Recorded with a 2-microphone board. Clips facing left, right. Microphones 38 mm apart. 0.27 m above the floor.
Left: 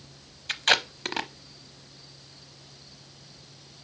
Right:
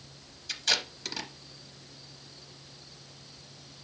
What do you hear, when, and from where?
0.5 s tape being pulled: 45° left (ahead or behind), 0.6 m